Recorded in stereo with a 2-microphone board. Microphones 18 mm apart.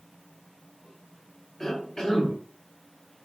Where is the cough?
35° left (ahead or behind), 1.8 m.